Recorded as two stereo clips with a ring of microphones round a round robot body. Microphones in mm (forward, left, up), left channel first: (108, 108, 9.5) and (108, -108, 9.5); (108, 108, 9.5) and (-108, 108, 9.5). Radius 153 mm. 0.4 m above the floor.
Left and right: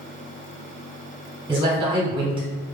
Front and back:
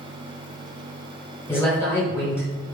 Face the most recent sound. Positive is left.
turn(degrees=-65)